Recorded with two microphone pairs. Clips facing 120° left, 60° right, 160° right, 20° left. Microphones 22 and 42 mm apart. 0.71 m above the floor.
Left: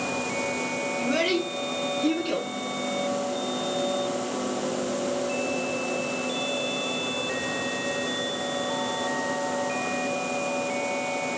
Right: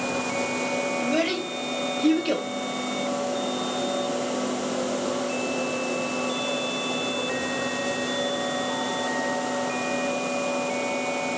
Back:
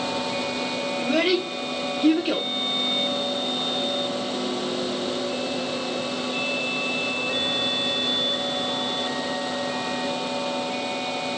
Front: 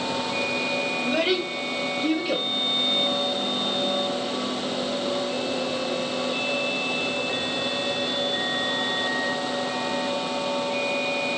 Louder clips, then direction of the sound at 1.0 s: Left 3 dB, back 4 dB; 170° right.